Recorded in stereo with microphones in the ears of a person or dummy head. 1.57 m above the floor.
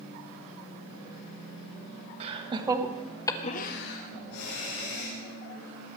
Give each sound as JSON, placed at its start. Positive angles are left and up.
{"t": 2.2, "sound": "laughter", "side_deg": -35, "distance_m": 1.9}